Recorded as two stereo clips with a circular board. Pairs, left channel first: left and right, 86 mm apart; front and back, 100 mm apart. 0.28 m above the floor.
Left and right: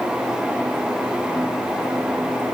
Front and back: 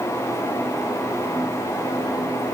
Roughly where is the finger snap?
No finger snap in this recording.